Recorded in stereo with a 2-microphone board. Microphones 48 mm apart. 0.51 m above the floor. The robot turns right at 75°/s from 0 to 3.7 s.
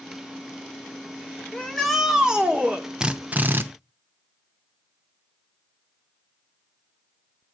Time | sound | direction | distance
1.5 | a shout | 155° left | 1.4 m
3.0 | a drill | 160° right | 0.5 m